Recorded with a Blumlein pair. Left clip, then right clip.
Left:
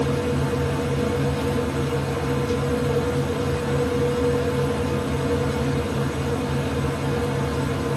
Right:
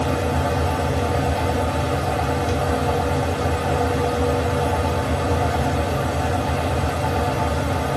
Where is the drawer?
I don't hear a drawer.